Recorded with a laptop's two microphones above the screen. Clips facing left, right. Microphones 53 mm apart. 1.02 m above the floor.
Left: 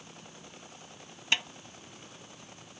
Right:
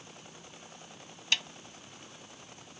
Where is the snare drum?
25° left (ahead or behind).